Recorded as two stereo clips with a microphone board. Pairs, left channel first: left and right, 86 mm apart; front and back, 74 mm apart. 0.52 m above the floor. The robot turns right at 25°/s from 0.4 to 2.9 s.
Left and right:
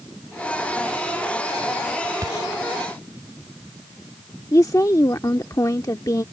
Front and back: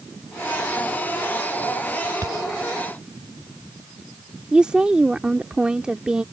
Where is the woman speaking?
110° left.